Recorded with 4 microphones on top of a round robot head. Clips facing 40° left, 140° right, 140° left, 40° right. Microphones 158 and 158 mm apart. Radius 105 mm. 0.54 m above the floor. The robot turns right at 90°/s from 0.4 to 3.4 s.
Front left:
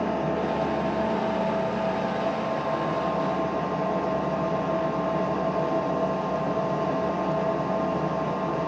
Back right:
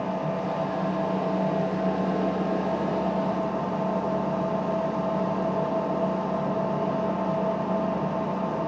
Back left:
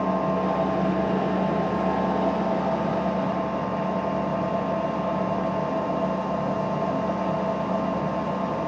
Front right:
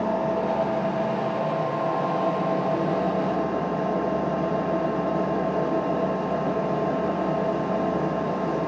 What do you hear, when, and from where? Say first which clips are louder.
0.0 s an engine running: front left 2 dB, even; 55° left, 0.8 m; by 8.7 s 35° right, 0.8 m